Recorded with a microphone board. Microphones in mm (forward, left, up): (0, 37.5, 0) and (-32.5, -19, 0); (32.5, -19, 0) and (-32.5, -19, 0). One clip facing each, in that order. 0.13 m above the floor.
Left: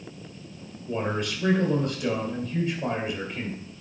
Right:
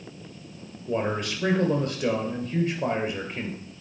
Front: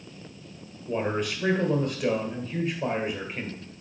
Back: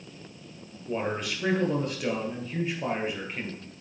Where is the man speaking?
90° right, 2 m.